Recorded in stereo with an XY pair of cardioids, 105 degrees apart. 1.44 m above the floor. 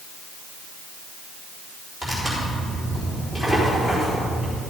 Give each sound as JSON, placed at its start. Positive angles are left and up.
{"t": 2.0, "sound": "tearing paper", "azimuth_deg": 20, "distance_m": 4.5}